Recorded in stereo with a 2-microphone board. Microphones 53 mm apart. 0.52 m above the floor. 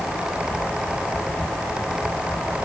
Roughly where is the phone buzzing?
I don't hear a phone buzzing.